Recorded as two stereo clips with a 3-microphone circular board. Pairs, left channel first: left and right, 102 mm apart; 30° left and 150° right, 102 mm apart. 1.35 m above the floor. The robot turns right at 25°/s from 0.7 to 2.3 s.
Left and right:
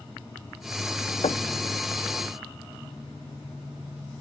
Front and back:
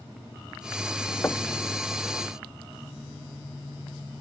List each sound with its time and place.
1.2 s knocking: 95° left; by 1.5 s 100° left